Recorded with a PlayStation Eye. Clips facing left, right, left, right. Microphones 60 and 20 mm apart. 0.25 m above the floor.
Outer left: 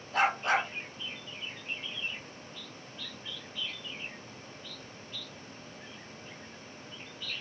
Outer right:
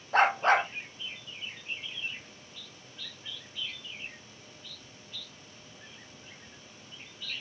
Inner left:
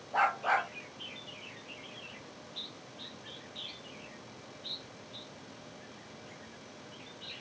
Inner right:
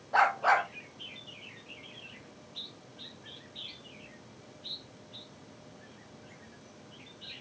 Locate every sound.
0.1 s a dog barking: 45° right (ahead or behind), 3 m